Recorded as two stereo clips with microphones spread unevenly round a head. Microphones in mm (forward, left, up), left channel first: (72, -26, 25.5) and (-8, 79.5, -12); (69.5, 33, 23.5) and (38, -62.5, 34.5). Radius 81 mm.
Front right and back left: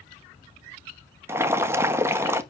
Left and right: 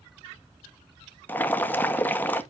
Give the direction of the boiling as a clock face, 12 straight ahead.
8 o'clock.